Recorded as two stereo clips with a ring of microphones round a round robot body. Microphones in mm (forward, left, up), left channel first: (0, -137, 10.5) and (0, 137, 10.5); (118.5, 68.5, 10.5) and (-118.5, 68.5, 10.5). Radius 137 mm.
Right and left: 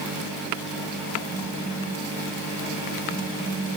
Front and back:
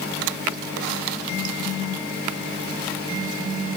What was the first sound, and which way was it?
Only background noise.